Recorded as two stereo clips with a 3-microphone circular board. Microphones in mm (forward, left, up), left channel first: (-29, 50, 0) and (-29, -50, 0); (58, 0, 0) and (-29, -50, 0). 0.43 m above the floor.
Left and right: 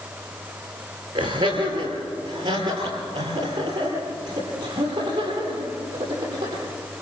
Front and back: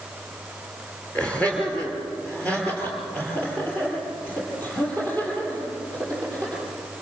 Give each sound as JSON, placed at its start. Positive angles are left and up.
{"t": 1.1, "sound": "laughter", "azimuth_deg": -50, "distance_m": 7.5}